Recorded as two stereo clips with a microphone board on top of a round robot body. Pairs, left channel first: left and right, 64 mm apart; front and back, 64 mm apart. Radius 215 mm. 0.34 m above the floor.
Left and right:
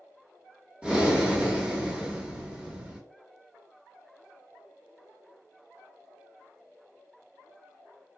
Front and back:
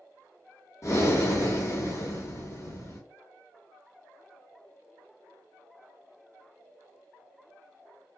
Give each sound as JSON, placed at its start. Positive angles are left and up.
{"t": 0.8, "sound": "breathing", "azimuth_deg": -20, "distance_m": 1.3}